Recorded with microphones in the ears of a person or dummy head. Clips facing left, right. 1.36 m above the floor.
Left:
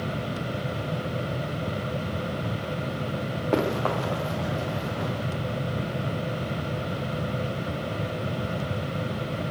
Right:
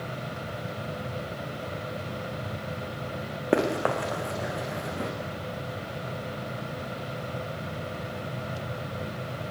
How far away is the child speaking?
No child speaking in this recording.